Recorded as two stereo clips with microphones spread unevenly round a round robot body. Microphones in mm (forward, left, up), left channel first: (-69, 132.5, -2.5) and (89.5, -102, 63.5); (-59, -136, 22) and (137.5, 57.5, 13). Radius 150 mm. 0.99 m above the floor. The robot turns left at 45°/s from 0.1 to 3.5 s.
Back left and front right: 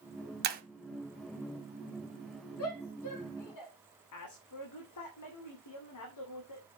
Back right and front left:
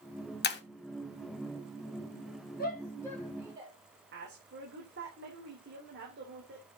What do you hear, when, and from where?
0.4 s breaking glass: 90° right, 1.2 m; by 0.6 s 100° right, 1.2 m
2.6 s a shout: 165° left, 3.5 m; by 3.7 s 120° left, 3.5 m
4.1 s a woman speaking: 105° left, 2.5 m